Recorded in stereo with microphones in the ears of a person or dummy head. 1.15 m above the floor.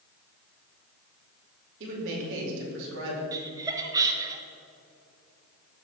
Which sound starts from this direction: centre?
Laughter, at 3.3 s.